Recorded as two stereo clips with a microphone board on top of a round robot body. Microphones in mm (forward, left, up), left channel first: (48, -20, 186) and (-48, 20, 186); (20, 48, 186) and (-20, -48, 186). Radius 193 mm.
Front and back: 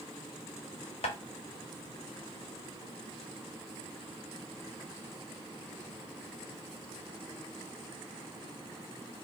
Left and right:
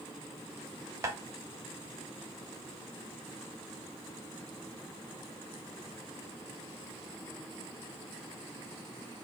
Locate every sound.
1.0 s tapping: 50° right, 0.7 m